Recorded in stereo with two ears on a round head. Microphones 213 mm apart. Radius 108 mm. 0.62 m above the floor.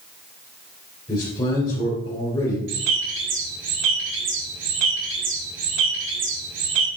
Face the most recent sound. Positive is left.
turn(degrees=-55)  # may be behind; listen again after turning